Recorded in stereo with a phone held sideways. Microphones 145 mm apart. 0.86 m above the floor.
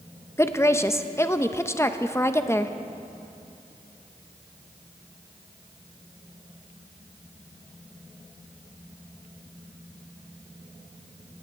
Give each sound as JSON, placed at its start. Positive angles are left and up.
{"t": 0.4, "sound": "a woman speaking", "side_deg": 15, "distance_m": 0.6}